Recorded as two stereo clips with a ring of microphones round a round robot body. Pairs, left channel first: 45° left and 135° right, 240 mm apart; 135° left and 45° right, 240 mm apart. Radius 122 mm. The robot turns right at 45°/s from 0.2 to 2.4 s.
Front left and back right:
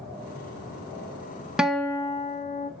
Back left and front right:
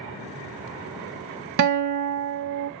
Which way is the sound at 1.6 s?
50° right.